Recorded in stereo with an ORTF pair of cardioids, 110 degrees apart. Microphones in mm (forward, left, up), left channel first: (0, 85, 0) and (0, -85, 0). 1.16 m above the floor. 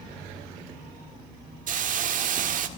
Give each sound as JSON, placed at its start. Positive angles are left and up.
{"t": 1.7, "sound": "a hiss", "azimuth_deg": -50, "distance_m": 1.7}